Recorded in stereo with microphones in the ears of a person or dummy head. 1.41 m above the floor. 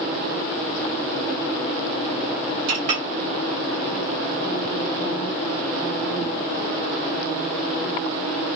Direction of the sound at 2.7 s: 40° right (ahead or behind).